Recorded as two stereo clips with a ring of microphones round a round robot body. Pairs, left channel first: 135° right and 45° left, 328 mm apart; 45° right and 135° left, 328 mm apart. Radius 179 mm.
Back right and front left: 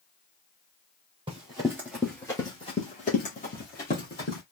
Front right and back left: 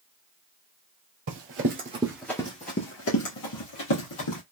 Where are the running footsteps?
115° left, 1.2 m; by 4.4 s 70° right, 2 m.